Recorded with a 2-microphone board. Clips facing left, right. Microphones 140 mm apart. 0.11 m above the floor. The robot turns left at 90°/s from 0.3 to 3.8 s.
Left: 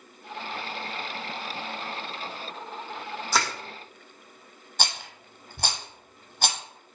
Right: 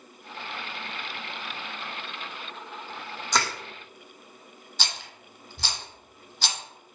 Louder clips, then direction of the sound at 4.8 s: Left 4 dB; 60° left (ahead or behind).